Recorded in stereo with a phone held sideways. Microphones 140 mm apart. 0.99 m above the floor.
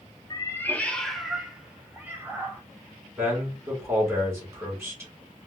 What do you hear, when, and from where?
0.3 s a cat meowing: 30° left (ahead or behind), 0.6 m; by 2.6 s 15° right (ahead or behind), 1.5 m
3.2 s a man speaking: 20° right (ahead or behind), 2.5 m